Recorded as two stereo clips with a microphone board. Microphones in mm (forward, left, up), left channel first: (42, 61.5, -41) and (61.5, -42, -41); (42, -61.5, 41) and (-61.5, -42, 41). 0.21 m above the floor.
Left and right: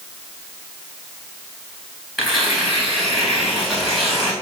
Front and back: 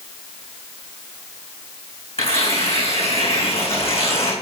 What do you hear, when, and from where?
2.2 s tearing paper: 10° left, 3 m